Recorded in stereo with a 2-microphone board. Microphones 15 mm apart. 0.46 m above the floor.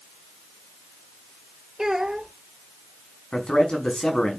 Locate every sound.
1.8 s a child speaking: 35° right (ahead or behind), 1.4 m
3.3 s a man speaking: 75° left (ahead or behind), 5 m